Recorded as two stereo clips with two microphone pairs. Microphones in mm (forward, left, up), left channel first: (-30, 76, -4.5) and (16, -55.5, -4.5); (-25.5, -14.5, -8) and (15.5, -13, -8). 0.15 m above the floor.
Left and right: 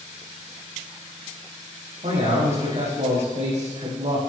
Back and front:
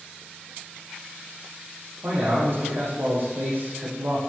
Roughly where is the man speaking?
Ahead right.